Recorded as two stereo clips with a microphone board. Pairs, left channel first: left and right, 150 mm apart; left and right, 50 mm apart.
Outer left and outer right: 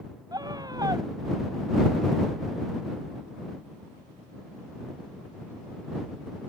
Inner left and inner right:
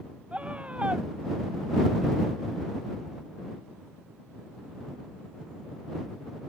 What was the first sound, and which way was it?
A scream, 25° right (ahead or behind).